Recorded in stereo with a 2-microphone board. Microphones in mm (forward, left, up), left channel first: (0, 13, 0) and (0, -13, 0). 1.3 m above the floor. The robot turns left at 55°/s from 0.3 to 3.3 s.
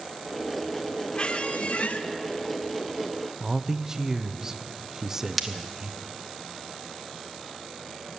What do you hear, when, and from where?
1.1 s a squeak: 130° left, 0.7 m; by 2.0 s 85° left, 0.7 m
3.4 s a man speaking: 25° right (ahead or behind), 0.5 m
5.4 s breaking glass: 5° left (ahead or behind), 0.9 m